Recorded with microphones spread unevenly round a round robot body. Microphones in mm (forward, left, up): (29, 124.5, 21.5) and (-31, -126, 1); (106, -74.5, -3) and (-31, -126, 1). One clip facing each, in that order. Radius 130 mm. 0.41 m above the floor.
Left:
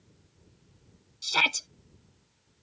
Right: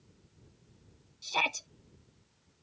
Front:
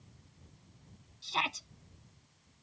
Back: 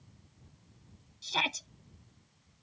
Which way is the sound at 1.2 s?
135° left.